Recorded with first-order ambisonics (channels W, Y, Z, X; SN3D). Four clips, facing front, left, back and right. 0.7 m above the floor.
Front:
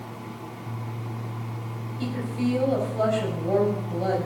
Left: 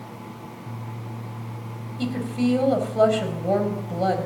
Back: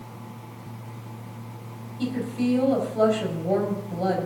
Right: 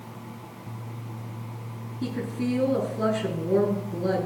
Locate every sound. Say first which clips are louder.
2.0 s a woman speaking: left 5 dB, back 2 dB; 95° left, 4.5 m